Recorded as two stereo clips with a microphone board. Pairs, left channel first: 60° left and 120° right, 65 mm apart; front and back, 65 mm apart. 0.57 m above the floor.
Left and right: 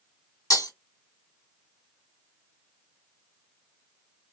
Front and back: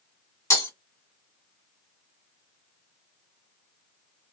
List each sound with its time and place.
0.5 s breaking glass: 40° left, 2 m